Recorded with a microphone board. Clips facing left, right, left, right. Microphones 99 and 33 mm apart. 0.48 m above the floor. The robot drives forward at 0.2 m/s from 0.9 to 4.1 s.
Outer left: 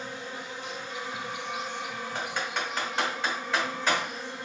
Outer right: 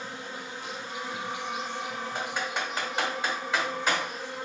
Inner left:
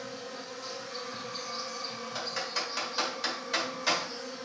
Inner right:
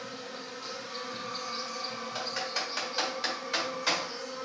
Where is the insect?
30° right (ahead or behind), 1.9 m; by 4.5 s 25° right (ahead or behind), 2.5 m.